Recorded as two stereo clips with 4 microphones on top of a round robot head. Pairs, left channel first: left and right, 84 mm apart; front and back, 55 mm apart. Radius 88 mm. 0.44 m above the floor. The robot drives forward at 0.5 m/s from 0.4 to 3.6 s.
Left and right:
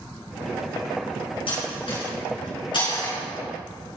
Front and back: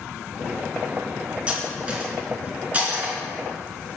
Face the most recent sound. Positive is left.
turn(degrees=120)